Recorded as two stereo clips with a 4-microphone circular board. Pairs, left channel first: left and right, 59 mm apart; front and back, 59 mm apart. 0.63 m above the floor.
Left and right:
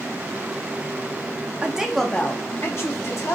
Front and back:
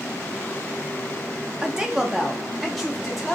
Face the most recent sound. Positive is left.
turn(degrees=85)